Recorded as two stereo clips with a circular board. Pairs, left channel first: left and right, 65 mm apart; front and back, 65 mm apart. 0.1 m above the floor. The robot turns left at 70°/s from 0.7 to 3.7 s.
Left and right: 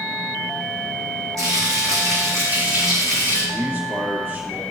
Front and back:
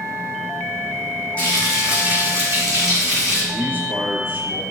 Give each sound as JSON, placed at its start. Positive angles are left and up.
{"t": 1.4, "sound": "frying", "azimuth_deg": -70, "distance_m": 4.0}
{"t": 3.5, "sound": "a man speaking", "azimuth_deg": -130, "distance_m": 2.5}